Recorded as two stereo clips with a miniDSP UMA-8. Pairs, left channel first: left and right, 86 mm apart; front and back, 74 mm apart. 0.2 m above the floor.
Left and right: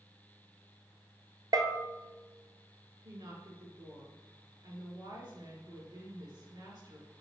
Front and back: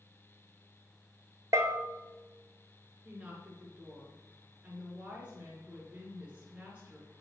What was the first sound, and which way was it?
A bell, 135° right.